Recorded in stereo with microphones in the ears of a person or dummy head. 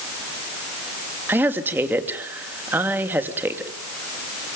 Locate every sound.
1.3 s a woman speaking: 5° right (ahead or behind), 2.5 m